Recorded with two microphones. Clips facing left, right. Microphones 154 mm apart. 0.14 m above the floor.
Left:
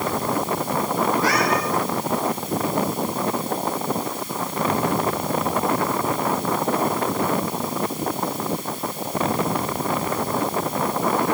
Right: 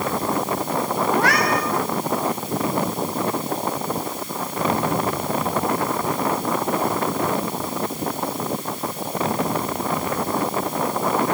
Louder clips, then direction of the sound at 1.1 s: Right 2 dB; 65° right (ahead or behind).